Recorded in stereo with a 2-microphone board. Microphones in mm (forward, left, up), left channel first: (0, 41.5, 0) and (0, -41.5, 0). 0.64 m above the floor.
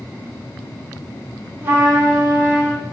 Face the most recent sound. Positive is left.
turn(degrees=-25)  # may be behind; listen again after turning